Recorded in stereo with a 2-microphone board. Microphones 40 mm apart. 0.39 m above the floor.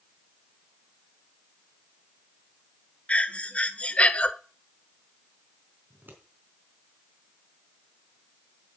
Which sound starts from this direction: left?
Breathing, at 3.1 s.